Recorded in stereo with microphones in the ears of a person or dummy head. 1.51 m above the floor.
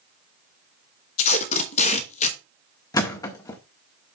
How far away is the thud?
About 1.7 m.